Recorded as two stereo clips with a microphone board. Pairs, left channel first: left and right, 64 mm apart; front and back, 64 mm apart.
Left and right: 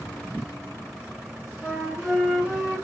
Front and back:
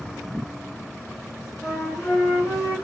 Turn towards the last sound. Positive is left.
turn(degrees=-15)